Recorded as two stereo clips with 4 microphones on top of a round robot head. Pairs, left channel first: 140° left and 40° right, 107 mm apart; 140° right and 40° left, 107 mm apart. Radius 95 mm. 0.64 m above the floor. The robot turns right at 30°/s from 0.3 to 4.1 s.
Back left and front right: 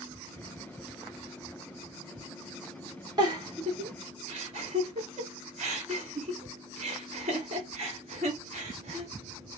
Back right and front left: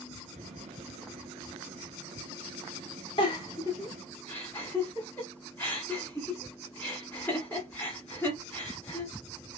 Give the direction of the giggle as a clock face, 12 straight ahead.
3 o'clock.